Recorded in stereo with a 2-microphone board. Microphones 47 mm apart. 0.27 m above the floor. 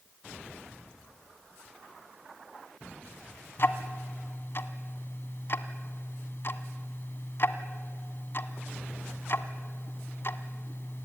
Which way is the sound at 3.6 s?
50° left (ahead or behind).